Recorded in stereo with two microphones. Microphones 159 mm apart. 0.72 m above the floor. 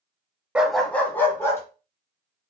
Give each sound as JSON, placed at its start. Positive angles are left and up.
{"t": 0.6, "sound": "a dog barking", "side_deg": -5, "distance_m": 0.7}